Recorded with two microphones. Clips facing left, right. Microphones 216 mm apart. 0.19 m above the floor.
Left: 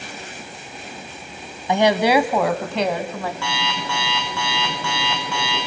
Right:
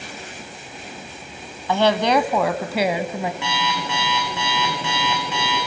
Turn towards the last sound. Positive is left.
turn(degrees=-20)  # may be behind; listen again after turning